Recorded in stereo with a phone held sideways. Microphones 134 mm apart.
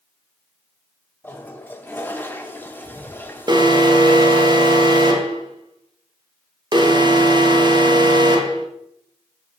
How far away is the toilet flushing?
About 0.8 m.